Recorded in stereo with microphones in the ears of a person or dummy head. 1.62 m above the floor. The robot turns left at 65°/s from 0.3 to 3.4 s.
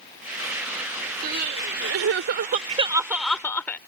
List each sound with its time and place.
1.2 s crying: 55° right; by 3.8 s 165° left